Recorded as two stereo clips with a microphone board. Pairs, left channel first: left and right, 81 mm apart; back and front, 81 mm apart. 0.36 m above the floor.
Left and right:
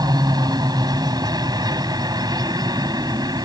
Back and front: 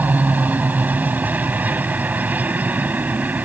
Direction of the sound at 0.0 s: 65° right.